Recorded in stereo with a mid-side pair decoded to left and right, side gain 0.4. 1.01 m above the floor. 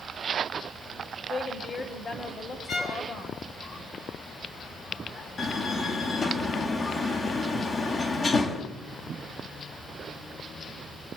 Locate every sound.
1.3 s a woman speaking: 45° left, 6 m
2.7 s a violin: 60° left, 7 m
5.4 s a door slam: 40° left, 4.5 m